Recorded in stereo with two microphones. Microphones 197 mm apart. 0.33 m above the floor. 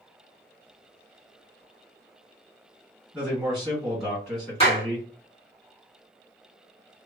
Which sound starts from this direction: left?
A clap, at 4.6 s.